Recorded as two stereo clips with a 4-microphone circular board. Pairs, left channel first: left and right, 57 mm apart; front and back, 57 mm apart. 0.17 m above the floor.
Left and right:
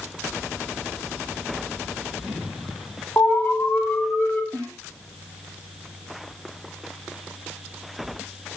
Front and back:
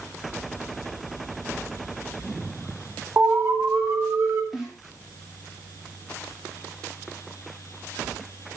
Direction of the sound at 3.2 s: 155° left.